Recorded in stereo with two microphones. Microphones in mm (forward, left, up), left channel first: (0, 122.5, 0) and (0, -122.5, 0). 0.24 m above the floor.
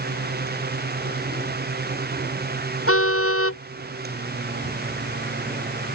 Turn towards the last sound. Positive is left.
turn(degrees=60)  # may be behind; listen again after turning